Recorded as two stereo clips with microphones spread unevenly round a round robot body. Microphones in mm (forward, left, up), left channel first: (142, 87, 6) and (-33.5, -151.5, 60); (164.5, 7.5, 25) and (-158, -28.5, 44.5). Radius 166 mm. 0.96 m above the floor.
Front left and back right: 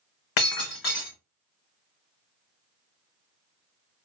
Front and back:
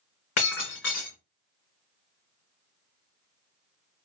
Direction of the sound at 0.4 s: 50° left.